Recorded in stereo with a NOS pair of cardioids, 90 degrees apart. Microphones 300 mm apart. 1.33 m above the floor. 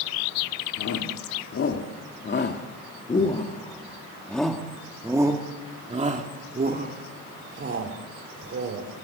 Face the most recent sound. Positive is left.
turn(degrees=-45)